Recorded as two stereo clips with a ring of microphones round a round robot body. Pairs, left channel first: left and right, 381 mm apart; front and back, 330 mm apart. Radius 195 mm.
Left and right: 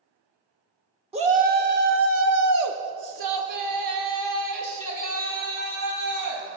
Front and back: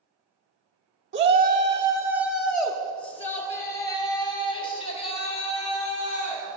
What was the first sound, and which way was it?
A shout, 155° right.